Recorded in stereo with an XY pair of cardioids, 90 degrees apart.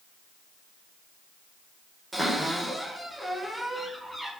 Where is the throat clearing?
I don't hear throat clearing.